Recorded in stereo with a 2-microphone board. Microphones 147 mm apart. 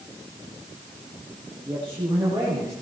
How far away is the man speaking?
About 6.5 m.